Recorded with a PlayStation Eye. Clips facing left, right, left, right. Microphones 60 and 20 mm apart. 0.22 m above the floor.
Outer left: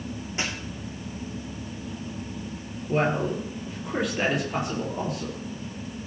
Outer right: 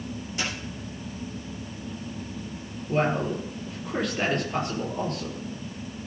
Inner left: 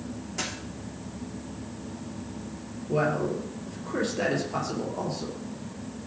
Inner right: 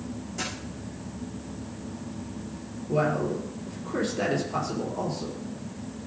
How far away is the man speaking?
About 4.5 m.